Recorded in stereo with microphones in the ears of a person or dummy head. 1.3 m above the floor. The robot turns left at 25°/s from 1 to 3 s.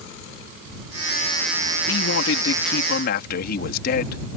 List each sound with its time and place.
1.9 s a man speaking: 85° left; by 4.2 s 60° left (ahead or behind)